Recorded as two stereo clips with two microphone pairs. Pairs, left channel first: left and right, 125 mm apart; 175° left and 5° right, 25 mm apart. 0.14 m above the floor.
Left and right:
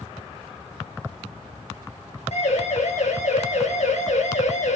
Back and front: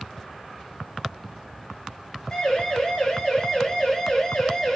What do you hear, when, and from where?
2.3 s a siren: 115° left, 8 m; by 4.8 s 110° left, 6 m